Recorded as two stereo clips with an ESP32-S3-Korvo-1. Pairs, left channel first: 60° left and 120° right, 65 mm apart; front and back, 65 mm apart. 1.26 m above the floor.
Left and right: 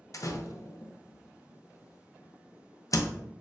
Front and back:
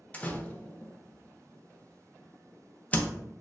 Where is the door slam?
60° left, 0.5 m.